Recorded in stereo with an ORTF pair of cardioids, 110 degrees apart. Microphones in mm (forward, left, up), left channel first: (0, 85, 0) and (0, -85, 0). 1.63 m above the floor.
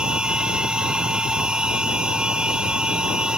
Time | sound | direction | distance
0.0 | a machine running | 5° right | ?